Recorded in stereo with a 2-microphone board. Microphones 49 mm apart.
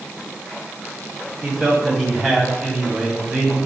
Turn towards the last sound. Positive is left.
turn(degrees=-5)  # may be behind; listen again after turning